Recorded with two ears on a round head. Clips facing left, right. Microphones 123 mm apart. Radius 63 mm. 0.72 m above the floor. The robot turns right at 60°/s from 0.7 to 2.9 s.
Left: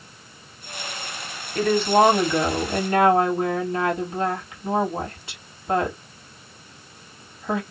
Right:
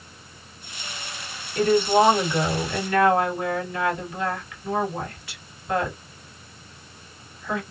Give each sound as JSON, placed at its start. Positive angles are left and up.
{"t": 1.6, "sound": "a woman speaking", "azimuth_deg": 70, "distance_m": 1.8}